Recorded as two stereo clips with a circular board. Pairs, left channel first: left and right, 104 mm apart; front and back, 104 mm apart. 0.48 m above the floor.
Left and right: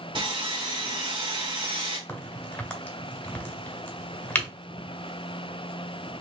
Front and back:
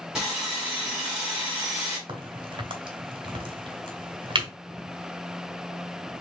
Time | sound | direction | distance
0.1 | sawing | 100° right | 2.0 m
2.1 | a crack | 160° left | 1.8 m